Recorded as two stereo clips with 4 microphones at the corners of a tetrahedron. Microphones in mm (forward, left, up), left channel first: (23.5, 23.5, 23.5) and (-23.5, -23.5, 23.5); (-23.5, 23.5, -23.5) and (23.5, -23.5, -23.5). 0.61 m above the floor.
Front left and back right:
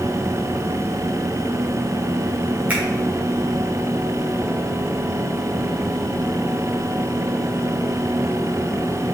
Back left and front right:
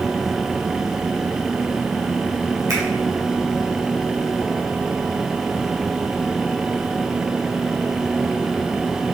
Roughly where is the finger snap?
Right.